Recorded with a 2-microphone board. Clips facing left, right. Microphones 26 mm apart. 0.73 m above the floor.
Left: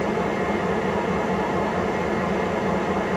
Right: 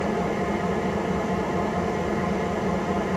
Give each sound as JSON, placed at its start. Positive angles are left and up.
{"t": 0.0, "sound": "an engine running", "side_deg": 40, "distance_m": 2.0}